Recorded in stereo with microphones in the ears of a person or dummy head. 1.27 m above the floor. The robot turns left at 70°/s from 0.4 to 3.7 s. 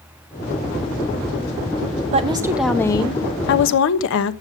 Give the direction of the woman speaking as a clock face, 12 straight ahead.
5 o'clock.